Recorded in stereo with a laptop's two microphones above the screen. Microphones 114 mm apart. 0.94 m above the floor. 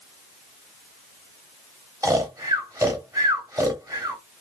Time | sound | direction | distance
2.0 | snoring | 30° right (ahead or behind) | 0.9 m